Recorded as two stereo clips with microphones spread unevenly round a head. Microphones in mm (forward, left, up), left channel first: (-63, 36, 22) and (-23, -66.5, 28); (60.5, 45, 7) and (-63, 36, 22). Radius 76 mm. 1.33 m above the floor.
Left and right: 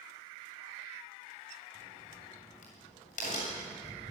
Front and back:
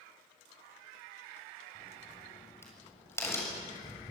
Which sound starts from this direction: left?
A crack, at 1.8 s.